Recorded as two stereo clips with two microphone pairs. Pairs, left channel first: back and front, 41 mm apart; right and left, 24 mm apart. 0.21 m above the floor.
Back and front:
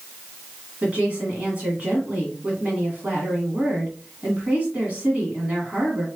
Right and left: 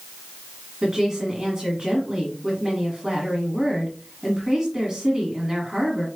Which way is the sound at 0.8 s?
40° left.